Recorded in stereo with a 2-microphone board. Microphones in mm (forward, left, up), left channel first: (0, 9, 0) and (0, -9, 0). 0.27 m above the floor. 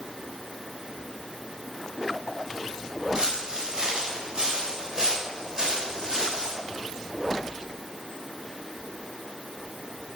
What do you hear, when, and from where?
3.1 s footsteps: 30° right (ahead or behind), 4.5 m; by 6.5 s 15° right (ahead or behind), 9.5 m